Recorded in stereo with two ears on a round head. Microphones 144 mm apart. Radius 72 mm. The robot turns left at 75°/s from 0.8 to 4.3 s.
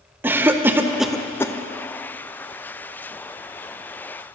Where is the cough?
15° right (ahead or behind), 0.5 m; by 1.5 s 20° left (ahead or behind), 0.5 m.